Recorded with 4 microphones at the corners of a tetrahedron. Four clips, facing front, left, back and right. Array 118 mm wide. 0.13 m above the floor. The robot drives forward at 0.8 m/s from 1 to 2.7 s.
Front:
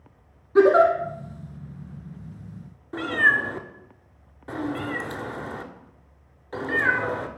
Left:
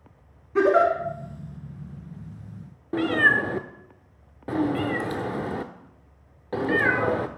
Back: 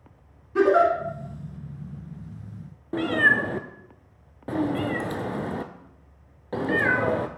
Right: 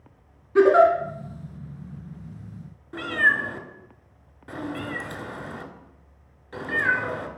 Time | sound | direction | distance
0.6 | a giggle | 20° right | 1.1 m
2.9 | a cat meowing | 130° left | 0.6 m